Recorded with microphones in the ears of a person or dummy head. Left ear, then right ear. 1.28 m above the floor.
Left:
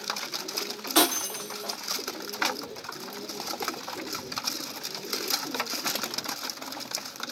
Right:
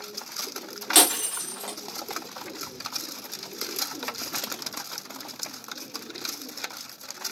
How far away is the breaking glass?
About 1.0 m.